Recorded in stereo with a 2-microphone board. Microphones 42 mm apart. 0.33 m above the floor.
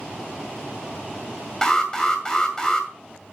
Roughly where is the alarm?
Centre.